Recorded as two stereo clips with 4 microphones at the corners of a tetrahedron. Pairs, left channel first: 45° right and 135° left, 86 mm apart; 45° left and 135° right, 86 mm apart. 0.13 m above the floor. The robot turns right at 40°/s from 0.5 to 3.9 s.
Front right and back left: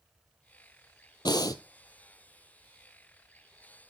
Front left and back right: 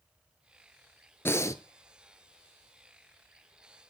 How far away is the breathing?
About 0.6 m.